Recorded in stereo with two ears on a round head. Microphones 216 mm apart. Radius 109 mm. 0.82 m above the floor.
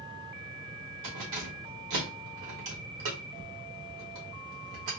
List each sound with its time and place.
1.0 s keys jangling: 85° right, 1.4 m